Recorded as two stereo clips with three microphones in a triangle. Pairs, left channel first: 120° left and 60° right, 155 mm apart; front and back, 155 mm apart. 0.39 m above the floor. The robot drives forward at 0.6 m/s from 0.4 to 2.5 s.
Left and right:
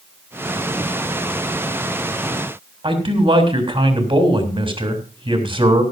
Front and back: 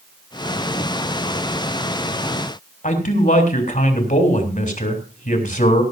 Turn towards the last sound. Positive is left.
turn(degrees=-10)